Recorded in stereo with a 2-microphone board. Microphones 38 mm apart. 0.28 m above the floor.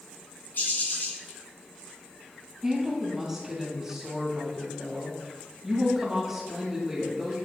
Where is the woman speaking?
10° right (ahead or behind), 1.9 m.